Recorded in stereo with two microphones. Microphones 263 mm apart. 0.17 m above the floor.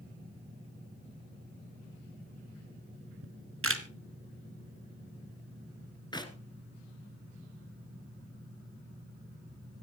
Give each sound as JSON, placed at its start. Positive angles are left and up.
{"t": 3.2, "sound": "a camera shutter", "side_deg": -55, "distance_m": 1.3}
{"t": 6.1, "sound": "a clap", "side_deg": 15, "distance_m": 1.7}